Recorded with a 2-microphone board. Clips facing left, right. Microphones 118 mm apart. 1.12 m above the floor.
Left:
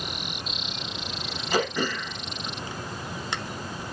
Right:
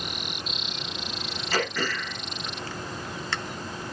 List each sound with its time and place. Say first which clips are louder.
1.5 s throat clearing: left 3 dB; 20° left (ahead or behind), 1.5 m